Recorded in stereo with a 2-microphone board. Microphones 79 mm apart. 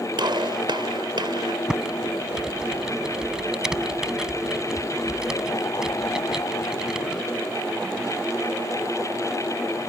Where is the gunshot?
70° right (ahead or behind).